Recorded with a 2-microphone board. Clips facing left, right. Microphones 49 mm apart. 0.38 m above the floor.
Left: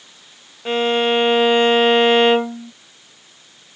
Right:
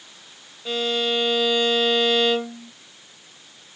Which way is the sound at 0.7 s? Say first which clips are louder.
Left 7 dB; 45° left (ahead or behind).